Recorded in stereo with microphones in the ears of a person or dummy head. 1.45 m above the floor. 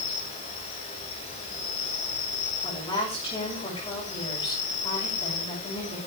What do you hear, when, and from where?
0.0 s an insect: 35° left (ahead or behind), 5 m
2.6 s a woman speaking: 30° left (ahead or behind), 7.5 m